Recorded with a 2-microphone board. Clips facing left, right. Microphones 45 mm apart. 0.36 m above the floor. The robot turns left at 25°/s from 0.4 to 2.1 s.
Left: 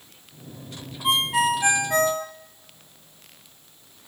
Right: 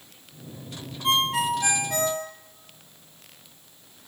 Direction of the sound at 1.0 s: 10° left (ahead or behind).